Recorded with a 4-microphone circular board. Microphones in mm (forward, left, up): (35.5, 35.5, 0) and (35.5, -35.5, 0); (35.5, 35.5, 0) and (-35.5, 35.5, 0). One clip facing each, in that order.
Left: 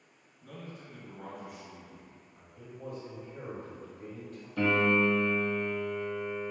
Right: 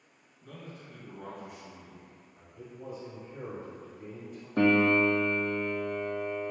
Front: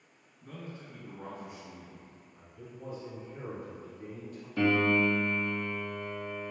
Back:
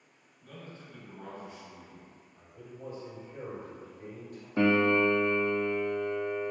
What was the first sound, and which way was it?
A man speaking, 10° left.